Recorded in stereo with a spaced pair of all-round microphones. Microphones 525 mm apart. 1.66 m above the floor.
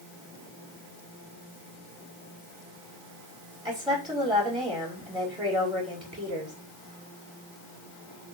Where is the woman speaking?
10° right (ahead or behind), 4.5 m.